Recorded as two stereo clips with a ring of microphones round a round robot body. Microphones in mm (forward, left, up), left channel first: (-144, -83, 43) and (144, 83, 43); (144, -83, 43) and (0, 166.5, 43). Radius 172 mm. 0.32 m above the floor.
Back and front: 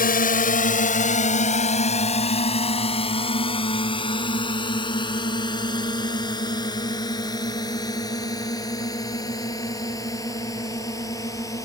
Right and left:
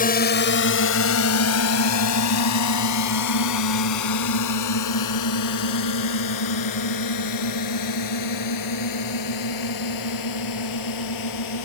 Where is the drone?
105° right; by 11.7 s 70° right.